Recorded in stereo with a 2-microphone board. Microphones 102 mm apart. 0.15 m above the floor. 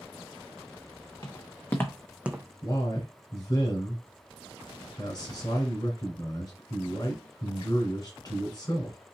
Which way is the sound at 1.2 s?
35° left (ahead or behind).